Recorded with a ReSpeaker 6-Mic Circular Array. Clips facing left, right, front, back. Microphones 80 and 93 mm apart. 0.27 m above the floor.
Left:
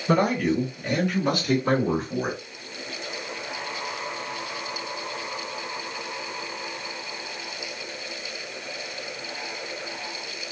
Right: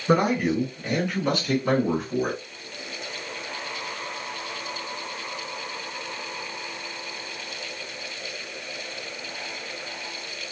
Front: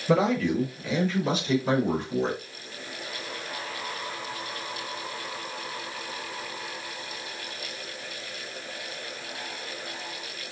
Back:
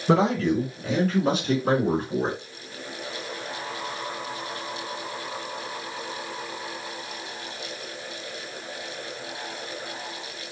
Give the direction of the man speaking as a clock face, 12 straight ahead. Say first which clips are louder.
Right 1 dB, back 2 dB; 6 o'clock.